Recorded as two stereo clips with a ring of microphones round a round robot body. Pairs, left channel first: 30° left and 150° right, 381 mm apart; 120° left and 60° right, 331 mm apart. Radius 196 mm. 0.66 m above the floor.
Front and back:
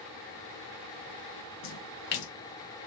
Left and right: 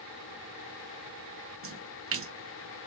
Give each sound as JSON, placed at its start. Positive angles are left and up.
{"t": 1.6, "sound": "a splash", "azimuth_deg": -5, "distance_m": 0.8}